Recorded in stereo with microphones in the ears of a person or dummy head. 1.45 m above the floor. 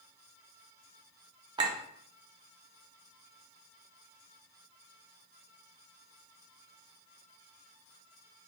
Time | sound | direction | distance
1.6 | a clink | 25° right (ahead or behind) | 0.7 m